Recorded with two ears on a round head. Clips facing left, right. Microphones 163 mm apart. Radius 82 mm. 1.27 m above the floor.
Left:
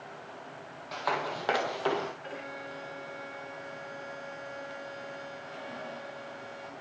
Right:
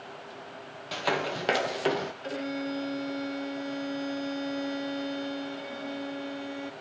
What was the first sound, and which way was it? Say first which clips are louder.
Running footsteps: right 3 dB; 35° right (ahead or behind).